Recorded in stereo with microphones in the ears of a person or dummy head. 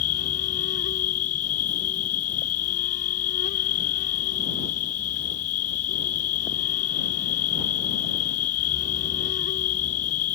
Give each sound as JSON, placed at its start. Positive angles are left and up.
{"t": 0.0, "sound": "an insect", "side_deg": 50}